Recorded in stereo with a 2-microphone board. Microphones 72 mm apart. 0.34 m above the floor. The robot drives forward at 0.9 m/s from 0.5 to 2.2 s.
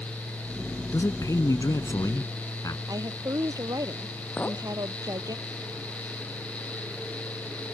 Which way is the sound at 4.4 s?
25° left (ahead or behind).